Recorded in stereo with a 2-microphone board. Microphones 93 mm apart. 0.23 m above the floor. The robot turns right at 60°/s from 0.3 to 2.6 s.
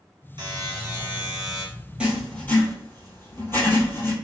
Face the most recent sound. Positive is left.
turn(degrees=25)  # may be behind; listen again after turning